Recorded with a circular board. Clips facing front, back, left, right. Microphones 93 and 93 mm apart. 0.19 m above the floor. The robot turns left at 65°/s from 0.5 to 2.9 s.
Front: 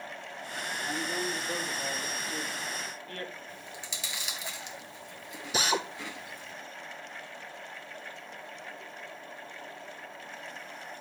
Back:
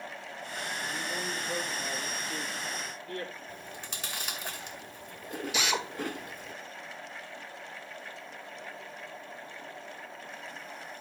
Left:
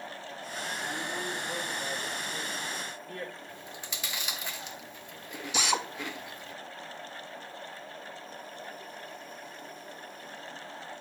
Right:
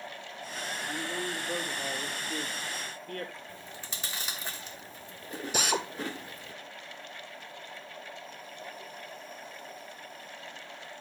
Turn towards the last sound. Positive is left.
turn(degrees=-50)